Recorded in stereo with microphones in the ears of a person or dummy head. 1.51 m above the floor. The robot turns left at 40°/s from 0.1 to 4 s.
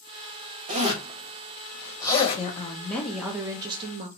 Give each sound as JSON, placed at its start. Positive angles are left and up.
{"t": 0.7, "sound": "a zipper", "side_deg": -35, "distance_m": 0.5}
{"t": 2.4, "sound": "a woman speaking", "azimuth_deg": 30, "distance_m": 0.5}